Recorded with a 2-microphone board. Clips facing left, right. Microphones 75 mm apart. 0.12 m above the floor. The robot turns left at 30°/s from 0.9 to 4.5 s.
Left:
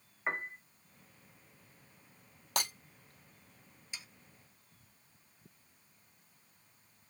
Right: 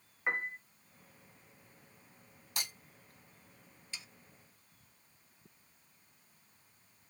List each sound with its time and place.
0.3 s a piano: centre (ahead or behind), 1.1 m
2.6 s breaking glass: 70° left (ahead or behind), 2.0 m
3.9 s sawing: 15° left (ahead or behind), 0.8 m; by 4.1 s 10° left (ahead or behind), 0.8 m